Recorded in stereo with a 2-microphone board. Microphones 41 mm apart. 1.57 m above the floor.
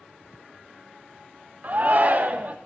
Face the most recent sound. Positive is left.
turn(degrees=-40)  # may be behind; listen again after turning